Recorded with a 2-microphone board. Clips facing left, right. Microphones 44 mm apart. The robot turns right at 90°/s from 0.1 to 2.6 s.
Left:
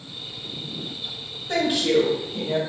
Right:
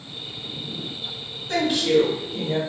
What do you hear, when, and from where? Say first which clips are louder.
1.5 s a woman speaking: right 1 dB; 35° left, 1.4 m; by 2.6 s 135° left, 1.4 m